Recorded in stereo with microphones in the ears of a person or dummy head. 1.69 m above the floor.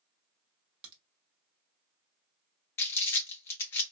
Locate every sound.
0.8 s a crack: 30° right (ahead or behind), 1.0 m
2.8 s crumpling: 15° left (ahead or behind), 0.7 m